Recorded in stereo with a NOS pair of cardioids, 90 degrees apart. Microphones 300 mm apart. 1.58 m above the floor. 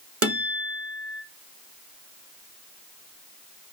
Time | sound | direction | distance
0.2 | a guitar | 50° right | 1.5 m